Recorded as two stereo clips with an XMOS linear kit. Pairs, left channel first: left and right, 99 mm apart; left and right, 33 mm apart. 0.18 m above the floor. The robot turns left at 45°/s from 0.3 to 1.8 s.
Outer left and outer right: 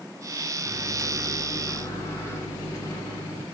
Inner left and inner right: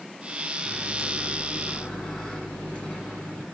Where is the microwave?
170° right, 1.8 m; by 3.4 s 140° left, 1.8 m.